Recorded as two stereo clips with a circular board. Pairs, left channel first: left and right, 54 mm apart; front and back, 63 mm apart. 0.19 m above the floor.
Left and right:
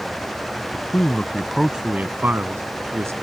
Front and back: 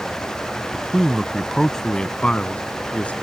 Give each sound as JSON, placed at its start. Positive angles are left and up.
{"t": 0.7, "sound": "a man speaking", "azimuth_deg": 110}